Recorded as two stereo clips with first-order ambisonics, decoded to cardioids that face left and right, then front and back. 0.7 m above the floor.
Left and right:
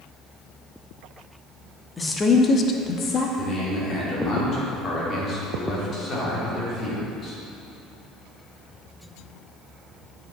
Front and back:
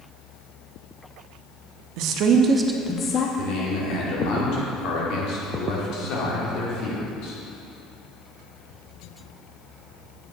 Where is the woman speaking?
170° left, 0.9 m; by 3.3 s 40° left, 0.7 m.